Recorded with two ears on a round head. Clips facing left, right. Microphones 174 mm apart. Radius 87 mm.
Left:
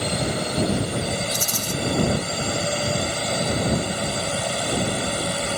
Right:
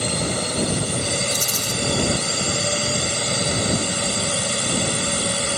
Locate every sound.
0.0 s a drone: 60° right (ahead or behind)
1.3 s a rattle: 15° right (ahead or behind)